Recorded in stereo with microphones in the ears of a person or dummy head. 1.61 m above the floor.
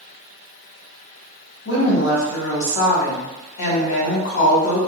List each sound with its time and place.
1.6 s a woman speaking: 65° left (ahead or behind), 1.1 m